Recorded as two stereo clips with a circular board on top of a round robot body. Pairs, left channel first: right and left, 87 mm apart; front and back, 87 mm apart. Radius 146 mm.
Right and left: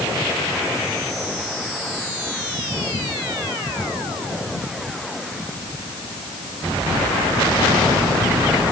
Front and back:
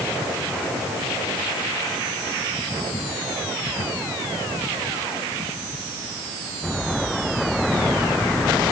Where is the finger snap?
No finger snap in this recording.